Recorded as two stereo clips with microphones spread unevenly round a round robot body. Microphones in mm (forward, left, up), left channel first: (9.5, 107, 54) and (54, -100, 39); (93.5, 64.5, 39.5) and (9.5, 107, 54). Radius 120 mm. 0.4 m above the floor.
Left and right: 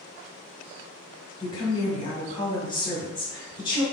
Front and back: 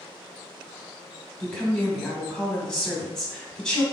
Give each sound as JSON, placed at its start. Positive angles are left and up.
{"t": 1.4, "sound": "a woman speaking", "azimuth_deg": 40, "distance_m": 1.6}